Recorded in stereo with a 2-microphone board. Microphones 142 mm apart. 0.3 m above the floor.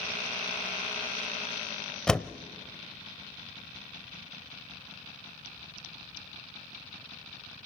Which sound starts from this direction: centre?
A door slam, at 2.1 s.